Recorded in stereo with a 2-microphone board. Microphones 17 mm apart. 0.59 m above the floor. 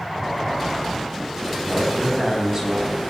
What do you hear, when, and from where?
1.6 s a man speaking: 30° right (ahead or behind), 5 m